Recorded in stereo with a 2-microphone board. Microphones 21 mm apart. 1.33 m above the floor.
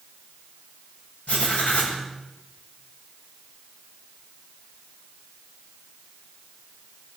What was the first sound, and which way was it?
Writing, 85° left.